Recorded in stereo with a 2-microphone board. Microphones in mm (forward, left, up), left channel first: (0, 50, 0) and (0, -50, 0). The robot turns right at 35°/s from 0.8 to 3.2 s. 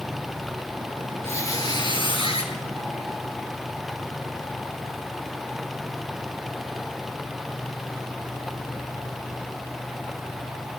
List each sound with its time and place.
1.2 s a squeak: 25° left, 5.5 m; by 2.5 s 70° left, 5.5 m